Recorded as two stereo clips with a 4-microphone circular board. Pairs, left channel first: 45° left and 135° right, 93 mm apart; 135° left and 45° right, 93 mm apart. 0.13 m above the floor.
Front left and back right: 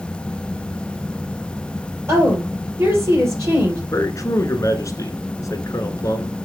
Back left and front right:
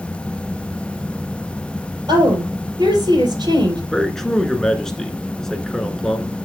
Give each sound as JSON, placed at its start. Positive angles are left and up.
{"t": 2.1, "sound": "a woman speaking", "azimuth_deg": -80, "distance_m": 3.5}
{"t": 3.9, "sound": "a man speaking", "azimuth_deg": 55, "distance_m": 1.3}